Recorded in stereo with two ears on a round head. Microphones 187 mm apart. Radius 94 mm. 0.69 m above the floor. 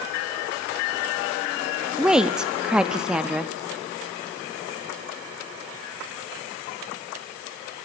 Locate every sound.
2.0 s a woman speaking: 5° right (ahead or behind), 0.7 m